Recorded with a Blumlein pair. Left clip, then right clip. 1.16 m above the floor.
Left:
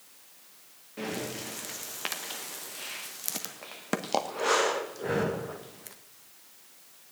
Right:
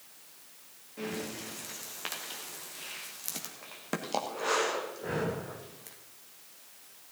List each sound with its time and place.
1.0 s breathing: 15° left, 1.1 m